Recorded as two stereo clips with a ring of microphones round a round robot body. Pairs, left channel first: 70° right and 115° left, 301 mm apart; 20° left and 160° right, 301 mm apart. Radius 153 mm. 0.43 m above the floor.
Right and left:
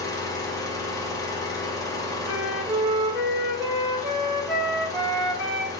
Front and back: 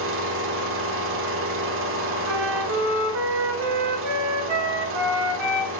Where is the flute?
160° right, 1.7 m.